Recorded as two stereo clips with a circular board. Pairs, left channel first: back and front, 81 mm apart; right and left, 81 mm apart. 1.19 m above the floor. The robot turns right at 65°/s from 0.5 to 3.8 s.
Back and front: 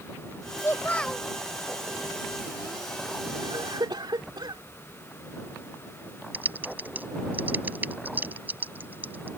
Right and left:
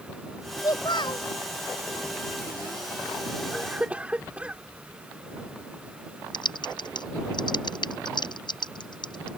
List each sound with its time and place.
0.6 s a child speaking: 130° right; by 1.3 s 85° right
3.4 s a cough: 10° right; by 4.6 s 15° left
6.3 s typing on a keyboard: 70° right